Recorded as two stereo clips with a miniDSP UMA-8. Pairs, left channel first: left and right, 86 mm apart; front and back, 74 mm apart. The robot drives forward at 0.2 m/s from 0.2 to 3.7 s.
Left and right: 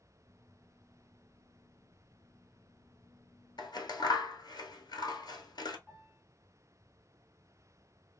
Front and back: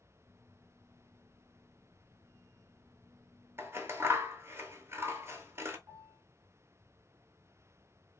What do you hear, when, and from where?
3.6 s scissors: 125° left, 0.6 m
5.9 s a piano: 170° left, 2 m